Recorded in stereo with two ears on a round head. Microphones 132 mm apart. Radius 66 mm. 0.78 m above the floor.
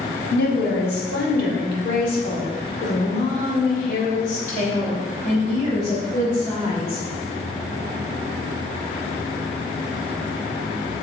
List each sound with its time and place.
0.3 s a woman speaking: 70° left (ahead or behind), 2 m; by 7.0 s 45° left (ahead or behind), 4.5 m